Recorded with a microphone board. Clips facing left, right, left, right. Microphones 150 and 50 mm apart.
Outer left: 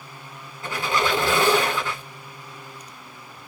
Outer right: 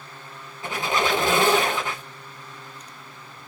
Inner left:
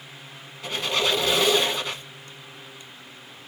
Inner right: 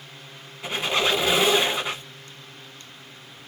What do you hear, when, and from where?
0.6 s a squeak: 20° right (ahead or behind), 0.8 m